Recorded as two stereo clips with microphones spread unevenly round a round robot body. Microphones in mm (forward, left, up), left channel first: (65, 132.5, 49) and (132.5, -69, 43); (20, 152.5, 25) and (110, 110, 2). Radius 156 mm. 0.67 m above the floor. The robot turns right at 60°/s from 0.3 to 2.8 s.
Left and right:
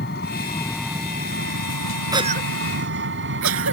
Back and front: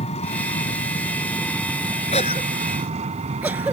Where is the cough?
150° right; by 3.7 s 110° right.